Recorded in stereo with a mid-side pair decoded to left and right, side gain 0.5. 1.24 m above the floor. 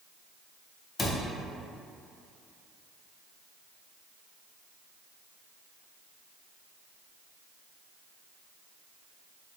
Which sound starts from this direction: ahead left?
A cupboard door, at 1.0 s.